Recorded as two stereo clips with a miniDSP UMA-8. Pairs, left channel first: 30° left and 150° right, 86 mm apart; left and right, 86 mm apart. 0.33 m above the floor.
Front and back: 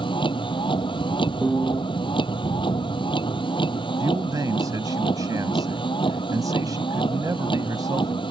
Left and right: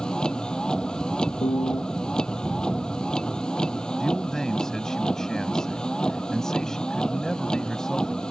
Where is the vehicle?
10° left.